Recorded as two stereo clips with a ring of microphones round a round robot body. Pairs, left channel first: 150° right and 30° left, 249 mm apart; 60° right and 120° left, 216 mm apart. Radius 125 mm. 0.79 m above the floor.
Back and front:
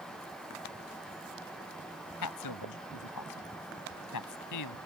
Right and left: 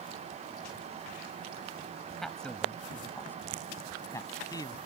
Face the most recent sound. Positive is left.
turn(degrees=-135)